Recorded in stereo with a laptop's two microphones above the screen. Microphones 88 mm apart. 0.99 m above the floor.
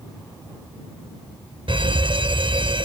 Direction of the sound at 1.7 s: 70° right (ahead or behind).